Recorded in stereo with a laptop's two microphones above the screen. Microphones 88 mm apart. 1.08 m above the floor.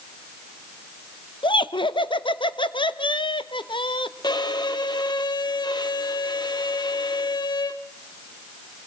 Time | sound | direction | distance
1.4 | laughter | 70° left (ahead or behind) | 1.0 m
4.2 | a violin | 55° left (ahead or behind) | 1.2 m